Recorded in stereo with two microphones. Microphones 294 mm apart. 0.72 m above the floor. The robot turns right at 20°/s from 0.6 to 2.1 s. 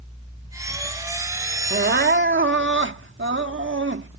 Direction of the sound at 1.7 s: 35° right (ahead or behind).